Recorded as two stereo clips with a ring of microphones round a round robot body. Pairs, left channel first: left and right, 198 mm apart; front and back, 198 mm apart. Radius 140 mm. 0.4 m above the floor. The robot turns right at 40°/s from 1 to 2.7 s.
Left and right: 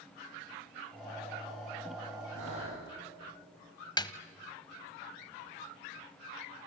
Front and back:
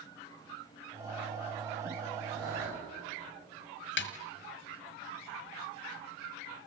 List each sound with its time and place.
2.3 s breathing: 130° right, 10 m; by 2.9 s 115° right, 10 m
4.0 s a snare drum: 20° left, 1.5 m